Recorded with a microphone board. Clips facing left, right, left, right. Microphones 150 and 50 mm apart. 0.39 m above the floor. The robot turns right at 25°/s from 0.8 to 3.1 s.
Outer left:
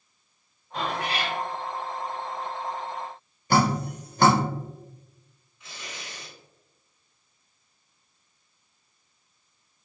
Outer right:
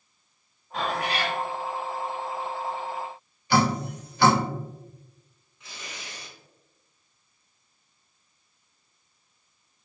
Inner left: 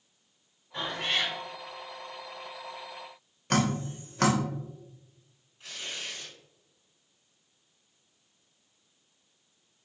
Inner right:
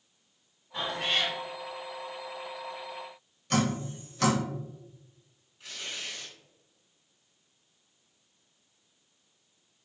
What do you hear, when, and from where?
0.7 s a cat meowing: centre (ahead or behind), 1.8 m; by 1.4 s 15° left (ahead or behind), 1.8 m
3.5 s dripping: 45° left (ahead or behind), 0.8 m
5.6 s tearing paper: 5° left (ahead or behind), 2.0 m